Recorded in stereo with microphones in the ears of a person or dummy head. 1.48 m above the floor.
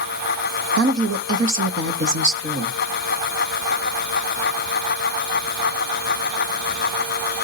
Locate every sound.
0.8 s a woman speaking: 80° right, 1.5 m